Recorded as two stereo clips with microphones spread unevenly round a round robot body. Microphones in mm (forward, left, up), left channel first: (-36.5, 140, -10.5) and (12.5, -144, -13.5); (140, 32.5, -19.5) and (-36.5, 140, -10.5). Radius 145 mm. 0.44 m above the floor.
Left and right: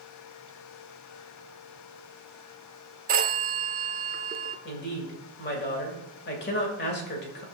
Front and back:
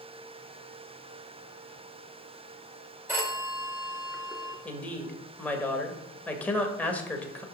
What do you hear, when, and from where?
3.1 s a phone ringing: 130° right, 0.8 m
4.7 s a woman speaking: 50° left, 1.9 m